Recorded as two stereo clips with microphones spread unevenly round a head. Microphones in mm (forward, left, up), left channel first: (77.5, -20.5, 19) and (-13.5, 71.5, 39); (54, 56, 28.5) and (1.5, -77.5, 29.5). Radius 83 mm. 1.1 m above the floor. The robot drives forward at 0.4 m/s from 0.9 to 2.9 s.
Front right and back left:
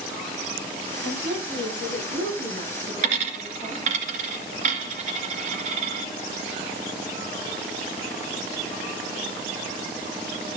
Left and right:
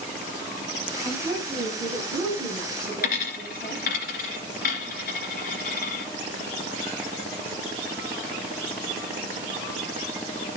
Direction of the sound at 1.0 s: 170° left.